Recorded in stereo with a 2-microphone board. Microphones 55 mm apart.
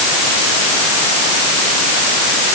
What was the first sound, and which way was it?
Only background noise.